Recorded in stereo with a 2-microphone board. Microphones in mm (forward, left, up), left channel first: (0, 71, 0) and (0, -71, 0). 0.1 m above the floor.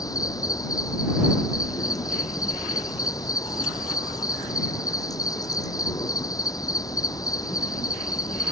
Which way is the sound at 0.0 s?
25° left (ahead or behind).